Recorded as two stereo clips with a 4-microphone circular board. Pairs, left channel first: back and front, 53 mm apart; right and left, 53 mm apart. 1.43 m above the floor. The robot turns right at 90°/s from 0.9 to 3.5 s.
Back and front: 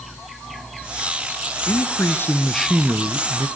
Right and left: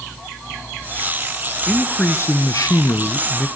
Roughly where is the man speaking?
Behind.